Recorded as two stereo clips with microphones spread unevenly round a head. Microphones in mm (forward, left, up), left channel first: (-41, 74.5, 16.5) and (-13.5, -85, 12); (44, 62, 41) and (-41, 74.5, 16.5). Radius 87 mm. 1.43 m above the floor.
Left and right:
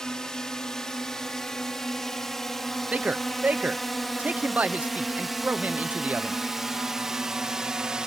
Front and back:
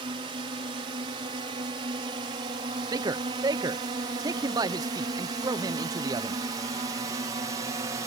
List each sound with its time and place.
0.0 s a drone: 175° right; by 8.1 s 165° right
2.9 s a man speaking: 160° right